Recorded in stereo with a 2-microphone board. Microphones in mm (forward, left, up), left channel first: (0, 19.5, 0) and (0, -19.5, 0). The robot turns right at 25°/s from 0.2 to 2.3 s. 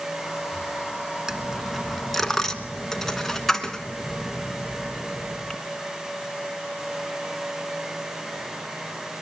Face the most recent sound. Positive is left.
turn(degrees=10)  # may be behind; listen again after turning